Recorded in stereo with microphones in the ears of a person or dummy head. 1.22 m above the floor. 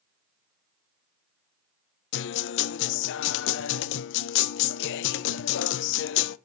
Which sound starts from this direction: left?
A guitar, at 2.1 s.